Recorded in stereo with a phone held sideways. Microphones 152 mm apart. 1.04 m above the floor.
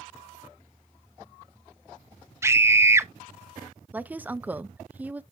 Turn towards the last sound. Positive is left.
turn(degrees=-10)  # may be behind; listen again after turning